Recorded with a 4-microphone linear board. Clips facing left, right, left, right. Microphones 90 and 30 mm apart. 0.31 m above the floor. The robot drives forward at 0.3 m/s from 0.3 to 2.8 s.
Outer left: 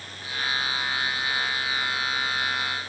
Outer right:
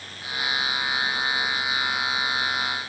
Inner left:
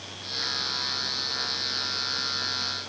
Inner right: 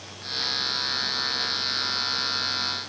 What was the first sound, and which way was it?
Only background noise.